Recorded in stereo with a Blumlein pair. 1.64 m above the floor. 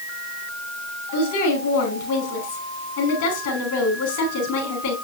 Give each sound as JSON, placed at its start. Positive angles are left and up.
{"t": 1.1, "sound": "a woman speaking", "azimuth_deg": 50, "distance_m": 4.5}